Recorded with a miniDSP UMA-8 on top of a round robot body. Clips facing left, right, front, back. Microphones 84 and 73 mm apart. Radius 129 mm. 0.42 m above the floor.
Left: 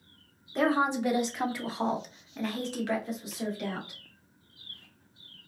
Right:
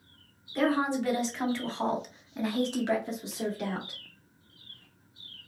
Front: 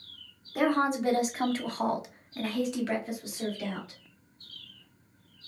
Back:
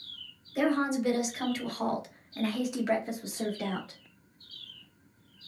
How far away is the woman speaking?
About 2 m.